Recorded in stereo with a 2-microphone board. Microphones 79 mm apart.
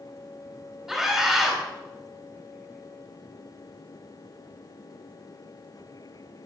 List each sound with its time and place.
0.9 s a scream: 5° right (ahead or behind), 2.5 m